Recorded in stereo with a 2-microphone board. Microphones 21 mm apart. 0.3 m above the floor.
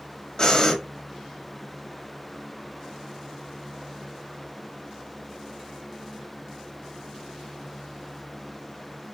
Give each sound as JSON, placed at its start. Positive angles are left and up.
{"t": 0.4, "sound": "breathing", "side_deg": 40, "distance_m": 1.1}